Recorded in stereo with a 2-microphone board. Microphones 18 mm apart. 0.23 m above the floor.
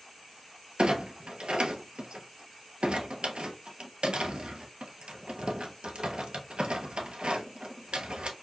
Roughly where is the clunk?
Right.